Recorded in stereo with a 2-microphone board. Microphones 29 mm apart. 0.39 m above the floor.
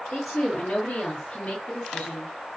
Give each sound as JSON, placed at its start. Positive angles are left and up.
{"t": 0.1, "sound": "a woman speaking", "side_deg": 40, "distance_m": 1.4}